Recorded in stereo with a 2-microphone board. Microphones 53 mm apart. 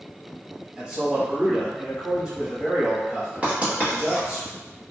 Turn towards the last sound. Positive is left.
turn(degrees=-30)  # may be behind; listen again after turning